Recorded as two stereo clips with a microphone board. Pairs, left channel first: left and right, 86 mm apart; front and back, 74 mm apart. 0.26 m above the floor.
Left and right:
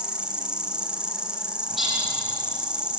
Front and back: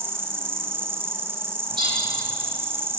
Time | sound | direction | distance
0.0 | an insect | 160° right | 1.8 m
1.7 | a bird | straight behind | 7.5 m